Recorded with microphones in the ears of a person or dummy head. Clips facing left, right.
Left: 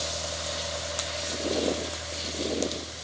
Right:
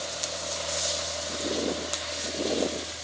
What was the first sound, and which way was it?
Only background noise.